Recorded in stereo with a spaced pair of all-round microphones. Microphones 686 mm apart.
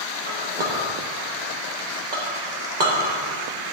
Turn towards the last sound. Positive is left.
turn(degrees=-75)  # may be behind; listen again after turning